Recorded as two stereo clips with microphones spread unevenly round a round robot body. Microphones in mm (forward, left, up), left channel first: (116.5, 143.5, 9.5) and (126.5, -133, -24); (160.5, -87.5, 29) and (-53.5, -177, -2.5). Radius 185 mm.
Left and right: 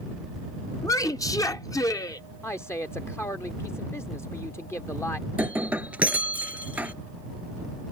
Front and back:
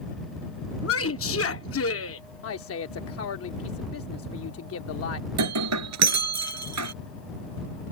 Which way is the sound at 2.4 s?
5° left.